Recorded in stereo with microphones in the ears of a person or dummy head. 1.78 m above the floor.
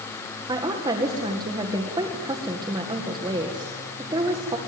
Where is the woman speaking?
20° right (ahead or behind), 1.9 m.